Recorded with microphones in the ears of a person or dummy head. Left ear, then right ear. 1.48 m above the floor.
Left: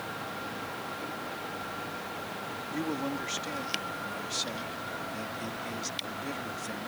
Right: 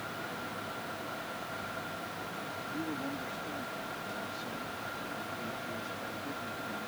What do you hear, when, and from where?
2.7 s a man speaking: 65° left (ahead or behind)